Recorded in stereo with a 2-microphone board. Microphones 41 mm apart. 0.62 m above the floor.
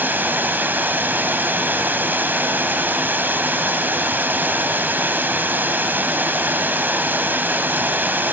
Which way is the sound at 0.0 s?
50° right (ahead or behind).